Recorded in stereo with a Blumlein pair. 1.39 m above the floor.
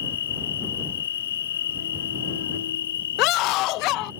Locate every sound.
0.0 s an insect: 60° left
3.2 s a scream: 40° left